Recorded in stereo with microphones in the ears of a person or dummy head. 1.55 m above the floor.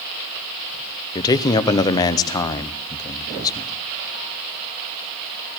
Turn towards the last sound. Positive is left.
turn(degrees=20)  # may be behind; listen again after turning